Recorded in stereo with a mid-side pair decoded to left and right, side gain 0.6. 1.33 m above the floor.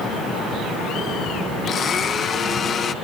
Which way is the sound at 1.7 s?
35° left.